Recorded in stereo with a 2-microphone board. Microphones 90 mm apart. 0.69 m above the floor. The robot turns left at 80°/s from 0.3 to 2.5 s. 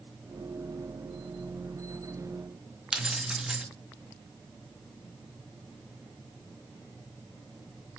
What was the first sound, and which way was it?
Keys jangling, 5° right (ahead or behind).